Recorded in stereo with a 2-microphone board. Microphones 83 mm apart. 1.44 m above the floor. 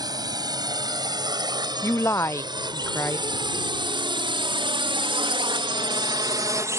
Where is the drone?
50° right (ahead or behind); by 6.8 s 35° right (ahead or behind).